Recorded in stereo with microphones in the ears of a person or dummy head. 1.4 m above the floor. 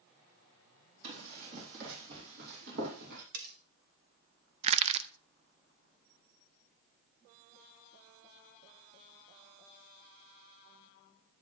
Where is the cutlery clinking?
50° right (ahead or behind), 1.3 m.